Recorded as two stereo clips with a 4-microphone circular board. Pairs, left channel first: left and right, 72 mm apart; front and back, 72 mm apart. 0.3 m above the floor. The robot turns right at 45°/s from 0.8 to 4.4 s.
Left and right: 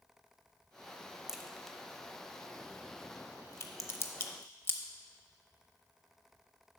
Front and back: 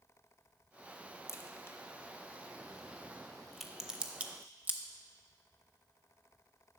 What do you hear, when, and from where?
1.3 s a crack: 10° right, 0.6 m; by 4.8 s 130° left, 0.6 m